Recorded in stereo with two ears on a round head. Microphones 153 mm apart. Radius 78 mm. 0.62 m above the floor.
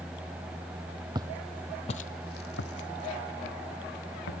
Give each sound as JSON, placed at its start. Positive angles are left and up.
{"t": 1.1, "sound": "footsteps", "side_deg": -25, "distance_m": 1.1}